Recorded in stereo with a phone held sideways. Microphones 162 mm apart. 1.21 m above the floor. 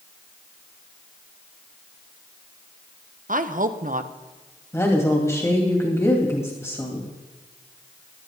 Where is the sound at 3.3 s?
55° right (ahead or behind), 0.9 m.